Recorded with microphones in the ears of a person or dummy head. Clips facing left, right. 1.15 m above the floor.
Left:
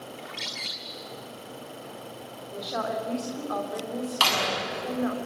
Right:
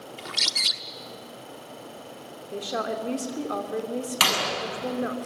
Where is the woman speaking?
45° right (ahead or behind), 3 m.